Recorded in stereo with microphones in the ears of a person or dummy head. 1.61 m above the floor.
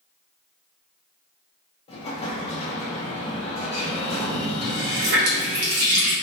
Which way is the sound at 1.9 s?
30° left (ahead or behind).